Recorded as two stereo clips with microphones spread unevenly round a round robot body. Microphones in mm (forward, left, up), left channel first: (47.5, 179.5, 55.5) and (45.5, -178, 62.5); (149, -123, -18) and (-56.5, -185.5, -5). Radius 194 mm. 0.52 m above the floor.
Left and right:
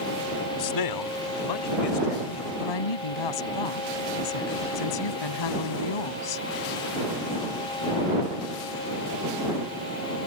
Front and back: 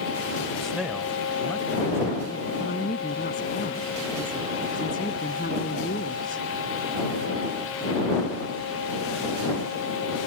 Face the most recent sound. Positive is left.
turn(degrees=85)